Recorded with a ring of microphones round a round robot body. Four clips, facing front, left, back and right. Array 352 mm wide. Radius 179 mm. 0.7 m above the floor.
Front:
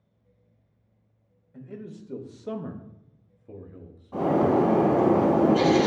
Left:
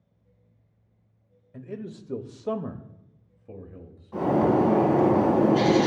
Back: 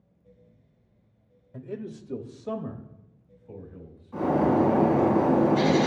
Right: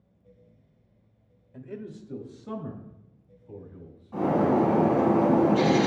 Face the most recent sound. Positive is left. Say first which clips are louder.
# left 1 dB, front 1 dB
turn(degrees=25)